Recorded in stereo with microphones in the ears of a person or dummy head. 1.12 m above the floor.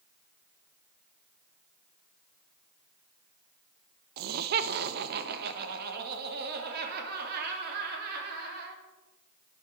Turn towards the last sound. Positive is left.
turn(degrees=-55)  # may be behind; listen again after turning